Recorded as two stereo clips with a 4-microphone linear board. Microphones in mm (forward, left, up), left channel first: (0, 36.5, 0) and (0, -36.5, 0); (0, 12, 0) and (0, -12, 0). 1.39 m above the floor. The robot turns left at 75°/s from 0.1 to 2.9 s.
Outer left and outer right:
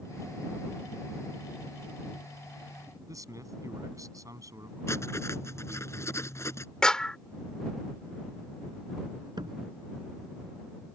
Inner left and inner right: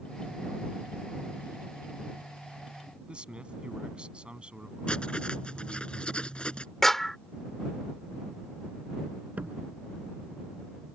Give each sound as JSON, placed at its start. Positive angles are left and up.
{"t": 3.1, "sound": "a man speaking", "side_deg": -50}
{"t": 4.9, "sound": "writing", "side_deg": 40}
{"t": 6.8, "sound": "a clap", "side_deg": 10}
{"t": 9.4, "sound": "a door slam", "side_deg": -85}